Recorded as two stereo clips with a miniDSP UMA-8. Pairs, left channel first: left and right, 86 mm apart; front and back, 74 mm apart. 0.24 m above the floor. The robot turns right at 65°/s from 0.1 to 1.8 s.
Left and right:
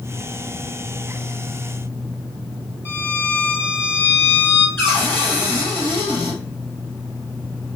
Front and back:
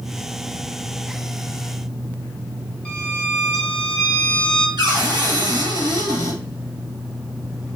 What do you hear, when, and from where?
2.9 s a violin: 65° left, 1.0 m
4.8 s a cupboard door: 155° left, 1.7 m